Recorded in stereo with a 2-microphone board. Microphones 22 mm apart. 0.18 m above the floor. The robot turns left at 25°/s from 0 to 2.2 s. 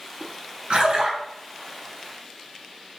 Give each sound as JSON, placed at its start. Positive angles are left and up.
{"t": 0.7, "sound": "a splash", "side_deg": -55, "distance_m": 1.1}